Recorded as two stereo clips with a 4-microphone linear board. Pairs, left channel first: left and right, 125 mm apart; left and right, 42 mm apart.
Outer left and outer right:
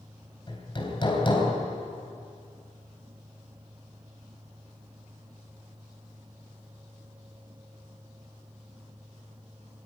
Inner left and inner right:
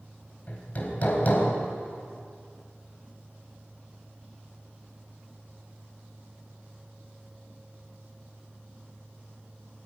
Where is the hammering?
40° left (ahead or behind), 3.5 m.